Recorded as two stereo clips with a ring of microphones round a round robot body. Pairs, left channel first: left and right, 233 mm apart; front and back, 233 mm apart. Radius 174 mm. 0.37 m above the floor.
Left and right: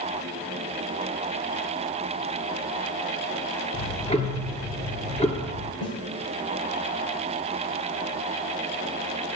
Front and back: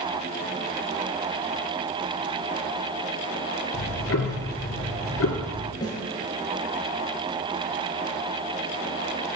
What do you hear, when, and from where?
3.7 s ticking: 25° left, 3 m
5.8 s a snare drum: 75° left, 6.5 m